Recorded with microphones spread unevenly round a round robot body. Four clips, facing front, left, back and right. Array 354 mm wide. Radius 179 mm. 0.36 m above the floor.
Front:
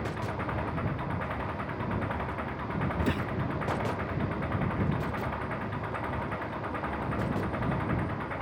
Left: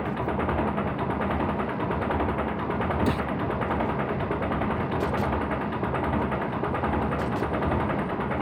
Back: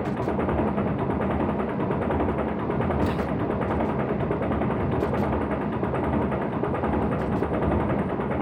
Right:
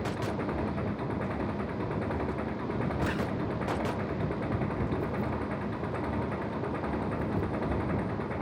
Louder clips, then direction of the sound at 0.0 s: Left 5 dB, back 9 dB; 160° left.